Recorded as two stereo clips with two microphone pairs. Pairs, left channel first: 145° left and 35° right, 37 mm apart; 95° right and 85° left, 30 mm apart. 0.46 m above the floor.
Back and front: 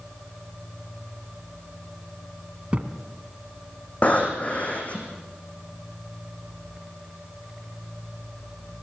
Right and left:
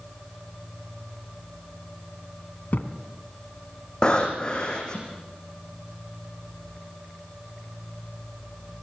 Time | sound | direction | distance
2.7 | a thud | 90° right | 1.9 m
4.0 | breathing | 160° right | 5 m